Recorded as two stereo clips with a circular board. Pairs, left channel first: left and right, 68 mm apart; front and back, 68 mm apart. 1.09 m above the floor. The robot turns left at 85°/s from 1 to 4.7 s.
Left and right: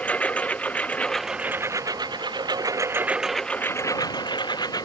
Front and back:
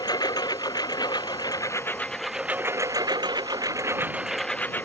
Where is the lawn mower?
20° left; by 4.9 s 65° left.